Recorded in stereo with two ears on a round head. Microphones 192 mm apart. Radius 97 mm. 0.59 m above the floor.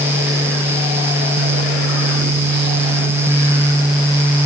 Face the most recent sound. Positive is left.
No sound to turn to.